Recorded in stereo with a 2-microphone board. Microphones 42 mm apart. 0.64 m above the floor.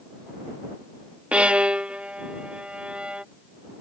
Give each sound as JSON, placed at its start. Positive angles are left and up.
{"t": 1.3, "sound": "a violin", "side_deg": -25}